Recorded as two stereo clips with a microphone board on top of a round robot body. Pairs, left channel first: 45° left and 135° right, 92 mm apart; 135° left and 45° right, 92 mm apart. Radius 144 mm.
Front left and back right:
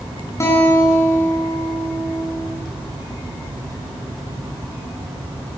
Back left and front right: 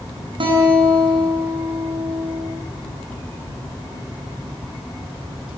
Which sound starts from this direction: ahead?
A guitar, at 0.4 s.